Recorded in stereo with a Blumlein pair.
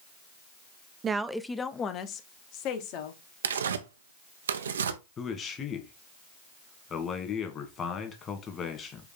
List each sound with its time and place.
1.0 s a woman speaking: 20° right, 0.6 m; by 3.2 s 45° left, 1.9 m
3.4 s tearing paper: 65° right, 0.7 m
5.2 s a man speaking: 25° left, 2 m